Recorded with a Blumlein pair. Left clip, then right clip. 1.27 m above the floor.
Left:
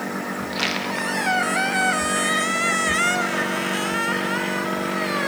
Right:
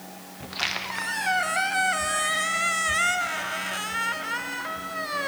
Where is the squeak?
10° left, 0.7 m.